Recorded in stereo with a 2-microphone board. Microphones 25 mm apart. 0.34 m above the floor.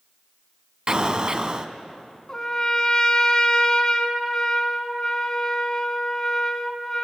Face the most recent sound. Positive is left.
turn(degrees=25)  # may be behind; listen again after turning